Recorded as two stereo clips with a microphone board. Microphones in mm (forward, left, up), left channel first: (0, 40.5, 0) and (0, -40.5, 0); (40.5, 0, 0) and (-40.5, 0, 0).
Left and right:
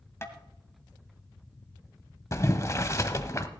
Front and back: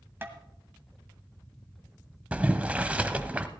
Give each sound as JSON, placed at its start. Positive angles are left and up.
{"t": 0.2, "sound": "tapping", "azimuth_deg": 130, "distance_m": 1.5}
{"t": 2.3, "sound": "boiling", "azimuth_deg": 115, "distance_m": 0.8}